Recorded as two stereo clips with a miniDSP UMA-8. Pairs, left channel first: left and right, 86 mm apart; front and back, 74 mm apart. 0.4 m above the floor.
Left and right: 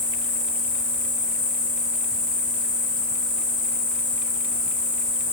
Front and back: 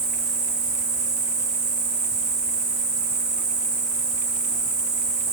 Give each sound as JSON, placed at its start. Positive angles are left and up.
{"t": 0.0, "sound": "an insect", "azimuth_deg": -105, "distance_m": 1.2}